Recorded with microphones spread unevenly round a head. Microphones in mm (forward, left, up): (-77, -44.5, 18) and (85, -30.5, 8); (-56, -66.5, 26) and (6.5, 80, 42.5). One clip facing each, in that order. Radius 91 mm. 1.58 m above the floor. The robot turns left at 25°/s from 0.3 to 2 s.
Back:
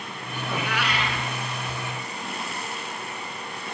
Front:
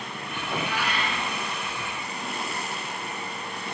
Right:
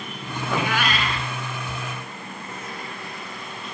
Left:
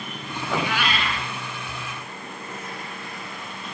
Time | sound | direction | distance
0.4 | a cat meowing | 150° right | 3.5 m